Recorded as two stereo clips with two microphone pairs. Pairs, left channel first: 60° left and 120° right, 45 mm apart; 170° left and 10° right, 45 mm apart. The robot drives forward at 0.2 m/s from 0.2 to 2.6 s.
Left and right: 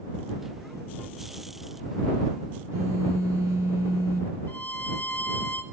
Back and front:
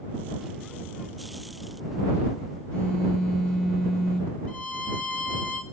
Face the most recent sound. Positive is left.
turn(degrees=110)